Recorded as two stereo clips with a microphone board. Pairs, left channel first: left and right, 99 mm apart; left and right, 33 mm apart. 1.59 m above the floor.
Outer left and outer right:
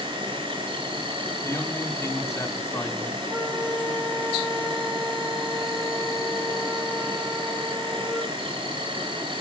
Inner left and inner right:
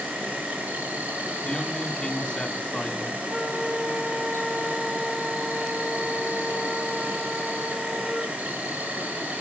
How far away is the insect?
About 5.5 m.